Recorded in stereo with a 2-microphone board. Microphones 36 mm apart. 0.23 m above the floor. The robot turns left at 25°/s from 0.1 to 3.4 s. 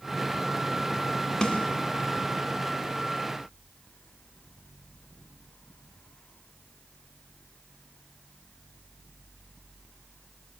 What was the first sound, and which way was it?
A snare drum, 20° left (ahead or behind).